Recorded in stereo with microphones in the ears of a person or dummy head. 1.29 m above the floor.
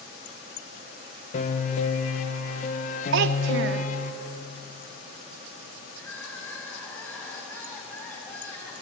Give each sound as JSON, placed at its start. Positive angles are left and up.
{"t": 1.3, "sound": "a piano", "side_deg": 50, "distance_m": 1.0}
{"t": 3.1, "sound": "a child speaking", "side_deg": -70, "distance_m": 0.5}
{"t": 6.0, "sound": "crying", "side_deg": 0, "distance_m": 5.5}